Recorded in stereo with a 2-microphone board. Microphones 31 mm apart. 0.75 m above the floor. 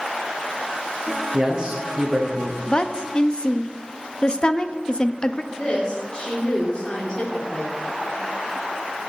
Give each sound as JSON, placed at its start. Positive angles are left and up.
{"t": 1.3, "sound": "a man speaking", "side_deg": -25, "distance_m": 1.2}
{"t": 2.7, "sound": "a woman speaking", "side_deg": 30, "distance_m": 0.5}
{"t": 5.5, "sound": "a woman speaking", "side_deg": 25, "distance_m": 2.0}